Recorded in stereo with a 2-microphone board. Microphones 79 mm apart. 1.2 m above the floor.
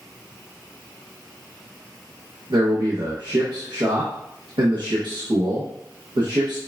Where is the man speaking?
65° right (ahead or behind), 0.9 m.